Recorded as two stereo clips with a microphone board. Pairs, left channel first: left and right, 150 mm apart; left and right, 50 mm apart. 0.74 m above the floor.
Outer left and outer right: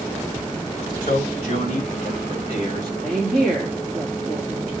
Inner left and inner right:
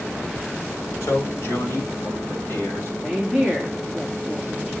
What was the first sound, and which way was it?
A man speaking, 55° left (ahead or behind).